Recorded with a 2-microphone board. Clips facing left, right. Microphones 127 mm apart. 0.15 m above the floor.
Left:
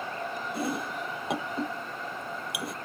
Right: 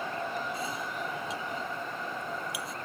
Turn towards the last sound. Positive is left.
turn(degrees=70)  # may be behind; listen again after turning